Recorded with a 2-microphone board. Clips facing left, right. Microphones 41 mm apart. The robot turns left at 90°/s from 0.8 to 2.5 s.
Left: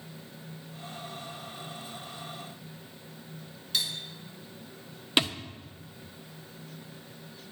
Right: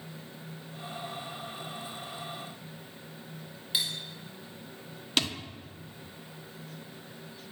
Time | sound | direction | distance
3.7 | cutlery clinking | 15° right (ahead or behind) | 3 m
5.2 | a thud | 20° left (ahead or behind) | 1.2 m